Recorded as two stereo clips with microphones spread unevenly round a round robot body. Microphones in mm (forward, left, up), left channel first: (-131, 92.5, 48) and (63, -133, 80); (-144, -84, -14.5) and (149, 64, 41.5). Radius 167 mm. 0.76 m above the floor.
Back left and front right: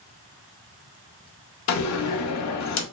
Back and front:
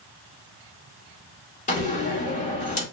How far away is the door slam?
About 0.6 m.